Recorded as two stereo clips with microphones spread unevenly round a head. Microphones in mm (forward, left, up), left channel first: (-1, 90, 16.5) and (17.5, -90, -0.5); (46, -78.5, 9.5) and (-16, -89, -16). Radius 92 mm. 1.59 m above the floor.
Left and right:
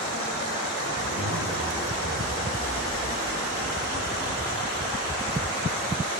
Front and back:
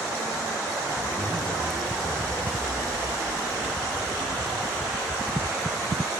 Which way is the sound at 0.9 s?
60° right.